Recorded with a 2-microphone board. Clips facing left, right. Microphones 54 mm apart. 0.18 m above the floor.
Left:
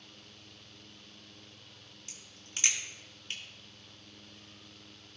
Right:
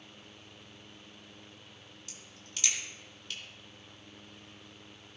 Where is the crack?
35° left (ahead or behind), 2.5 m.